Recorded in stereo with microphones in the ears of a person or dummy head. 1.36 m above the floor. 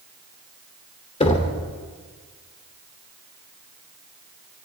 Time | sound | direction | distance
1.2 | knocking | 30° left (ahead or behind) | 2.5 m